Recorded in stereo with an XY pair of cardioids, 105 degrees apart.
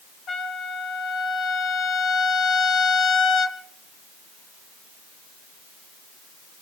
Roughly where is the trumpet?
Ahead left.